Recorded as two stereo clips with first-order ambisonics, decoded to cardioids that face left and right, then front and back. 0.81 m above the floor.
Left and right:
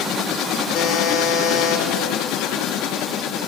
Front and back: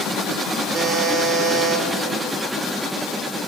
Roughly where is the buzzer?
Behind left.